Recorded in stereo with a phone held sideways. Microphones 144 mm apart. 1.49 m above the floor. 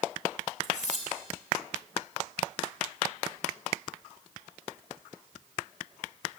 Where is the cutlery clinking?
60° left (ahead or behind), 3 m.